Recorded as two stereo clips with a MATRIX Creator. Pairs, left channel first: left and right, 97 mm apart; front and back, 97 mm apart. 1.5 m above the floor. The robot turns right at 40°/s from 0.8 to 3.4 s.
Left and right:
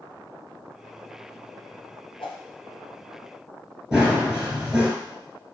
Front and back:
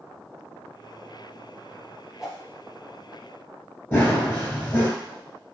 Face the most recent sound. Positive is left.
turn(degrees=-20)